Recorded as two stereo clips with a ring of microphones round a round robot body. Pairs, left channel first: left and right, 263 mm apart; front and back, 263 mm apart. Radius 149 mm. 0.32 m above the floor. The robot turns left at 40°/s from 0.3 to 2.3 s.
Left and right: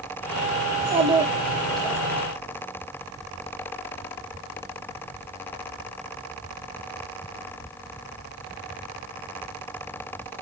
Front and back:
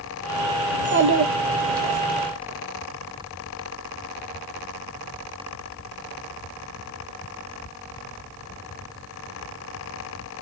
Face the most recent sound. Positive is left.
turn(degrees=155)